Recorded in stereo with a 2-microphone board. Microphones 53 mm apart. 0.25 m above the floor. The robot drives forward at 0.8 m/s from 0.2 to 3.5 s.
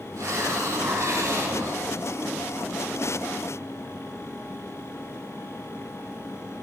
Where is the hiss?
80° right, 9.5 m; by 1.9 s 75° right (ahead or behind), 9.5 m.